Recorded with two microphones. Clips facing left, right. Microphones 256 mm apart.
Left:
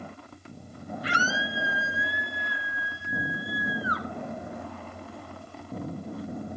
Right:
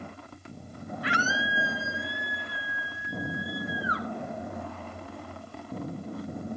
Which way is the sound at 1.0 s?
75° right (ahead or behind).